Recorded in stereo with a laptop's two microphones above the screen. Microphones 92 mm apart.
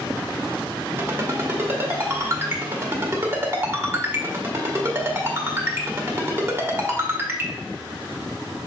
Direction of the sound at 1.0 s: 25° right (ahead or behind).